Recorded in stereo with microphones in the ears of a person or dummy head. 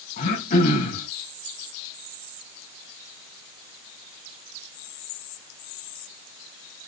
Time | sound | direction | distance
0.2 | throat clearing | 50° left (ahead or behind) | 5 m